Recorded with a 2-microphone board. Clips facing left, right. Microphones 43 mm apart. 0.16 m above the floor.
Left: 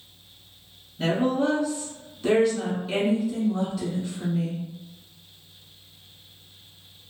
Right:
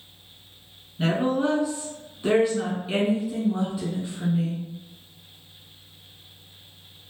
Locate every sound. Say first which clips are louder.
1.0 s a woman speaking: even; 20° right (ahead or behind), 1.4 m